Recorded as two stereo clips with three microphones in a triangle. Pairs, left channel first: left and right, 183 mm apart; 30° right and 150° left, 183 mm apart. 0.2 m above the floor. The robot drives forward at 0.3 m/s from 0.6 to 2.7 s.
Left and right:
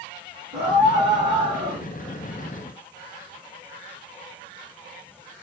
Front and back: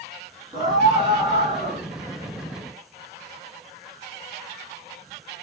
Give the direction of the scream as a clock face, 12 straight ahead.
5 o'clock.